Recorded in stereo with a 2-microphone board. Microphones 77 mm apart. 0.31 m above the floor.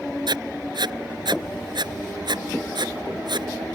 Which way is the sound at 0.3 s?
75° right (ahead or behind).